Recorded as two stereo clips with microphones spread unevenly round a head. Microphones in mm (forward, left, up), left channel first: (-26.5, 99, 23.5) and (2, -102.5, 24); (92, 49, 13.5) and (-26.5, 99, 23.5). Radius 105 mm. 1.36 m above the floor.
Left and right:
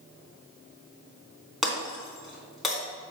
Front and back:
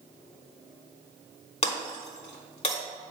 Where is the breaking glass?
5° left, 3 m.